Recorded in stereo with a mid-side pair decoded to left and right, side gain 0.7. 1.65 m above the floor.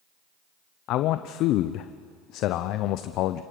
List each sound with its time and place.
0.9 s a man speaking: 55° left, 0.7 m